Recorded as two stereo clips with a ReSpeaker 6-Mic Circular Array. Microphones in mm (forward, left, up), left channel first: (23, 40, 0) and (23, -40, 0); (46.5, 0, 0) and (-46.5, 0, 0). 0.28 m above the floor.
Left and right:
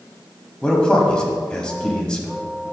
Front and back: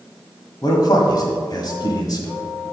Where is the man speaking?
15° left, 1.4 m.